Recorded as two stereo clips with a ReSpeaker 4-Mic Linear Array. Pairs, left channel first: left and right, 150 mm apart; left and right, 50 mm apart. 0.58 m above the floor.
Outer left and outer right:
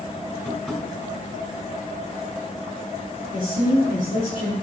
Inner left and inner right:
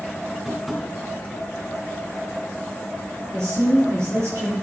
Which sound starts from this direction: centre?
Tapping, at 0.5 s.